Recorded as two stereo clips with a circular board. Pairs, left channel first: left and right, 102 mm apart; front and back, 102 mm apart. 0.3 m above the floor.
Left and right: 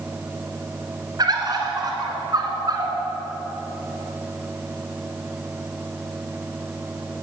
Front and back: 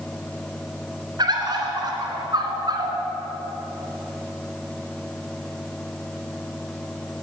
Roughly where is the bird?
Behind right.